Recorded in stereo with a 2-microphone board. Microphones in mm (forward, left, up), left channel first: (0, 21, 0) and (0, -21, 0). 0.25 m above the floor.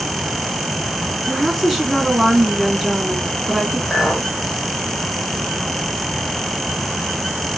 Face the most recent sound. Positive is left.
turn(degrees=-20)  # may be behind; listen again after turning